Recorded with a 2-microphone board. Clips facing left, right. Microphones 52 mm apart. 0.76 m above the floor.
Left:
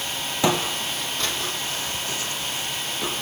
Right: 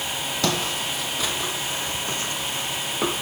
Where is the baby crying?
I don't hear a baby crying.